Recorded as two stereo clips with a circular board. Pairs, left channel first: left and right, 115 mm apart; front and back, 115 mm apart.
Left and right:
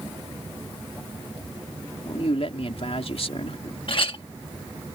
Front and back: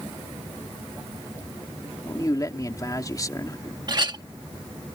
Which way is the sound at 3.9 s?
130° left.